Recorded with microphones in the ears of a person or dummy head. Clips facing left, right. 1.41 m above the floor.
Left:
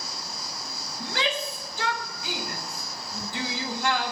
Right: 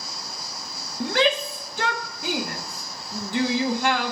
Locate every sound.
1.0 s a shout: 45° right (ahead or behind), 0.6 m